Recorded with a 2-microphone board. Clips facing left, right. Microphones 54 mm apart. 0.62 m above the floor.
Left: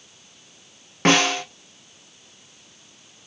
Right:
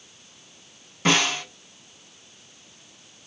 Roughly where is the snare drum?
Left.